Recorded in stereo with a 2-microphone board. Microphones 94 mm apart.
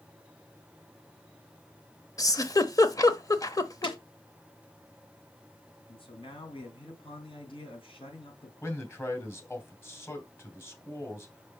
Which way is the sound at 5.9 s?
65° left (ahead or behind).